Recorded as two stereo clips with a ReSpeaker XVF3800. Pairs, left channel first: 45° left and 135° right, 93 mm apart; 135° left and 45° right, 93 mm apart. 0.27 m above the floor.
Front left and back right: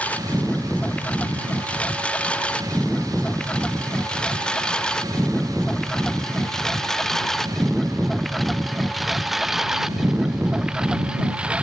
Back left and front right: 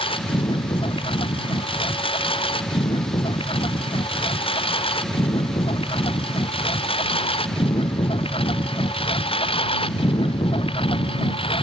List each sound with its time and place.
0.0 s a lawn mower: 120° left; by 11.6 s 145° left